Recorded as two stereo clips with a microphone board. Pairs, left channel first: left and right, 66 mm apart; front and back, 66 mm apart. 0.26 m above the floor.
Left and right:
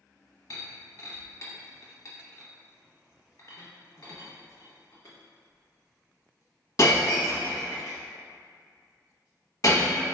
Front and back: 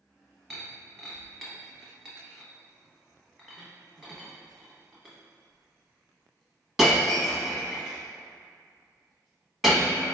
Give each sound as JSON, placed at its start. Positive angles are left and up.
{"t": 0.5, "sound": "breaking glass", "azimuth_deg": 95, "distance_m": 1.0}